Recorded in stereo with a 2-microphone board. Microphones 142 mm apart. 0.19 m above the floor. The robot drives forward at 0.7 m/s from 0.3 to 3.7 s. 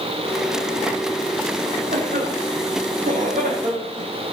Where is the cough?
85° right, 7.5 m; by 4.1 s 80° right, 7.5 m.